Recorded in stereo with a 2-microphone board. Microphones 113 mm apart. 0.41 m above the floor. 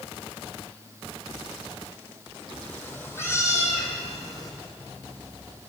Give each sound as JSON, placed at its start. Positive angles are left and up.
{"t": 2.6, "sound": "a cat meowing", "side_deg": 15, "distance_m": 2.5}